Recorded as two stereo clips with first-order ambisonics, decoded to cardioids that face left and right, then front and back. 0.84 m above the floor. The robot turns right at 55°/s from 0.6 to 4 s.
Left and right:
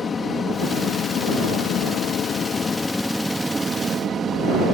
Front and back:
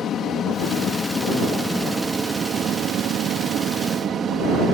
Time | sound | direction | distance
0.0 | an aircraft | 35° left | ?